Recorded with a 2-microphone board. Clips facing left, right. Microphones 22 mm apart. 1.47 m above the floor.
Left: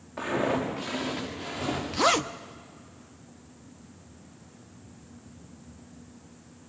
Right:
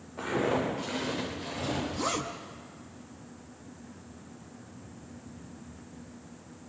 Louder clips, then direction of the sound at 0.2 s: Left 1 dB; 50° left (ahead or behind).